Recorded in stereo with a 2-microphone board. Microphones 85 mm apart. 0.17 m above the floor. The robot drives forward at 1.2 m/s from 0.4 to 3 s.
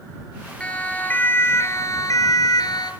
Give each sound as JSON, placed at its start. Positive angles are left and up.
{"t": 0.6, "sound": "a siren", "side_deg": 15, "distance_m": 3.0}